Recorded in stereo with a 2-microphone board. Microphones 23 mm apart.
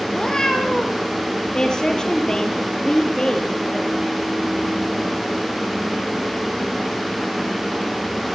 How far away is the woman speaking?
About 6 m.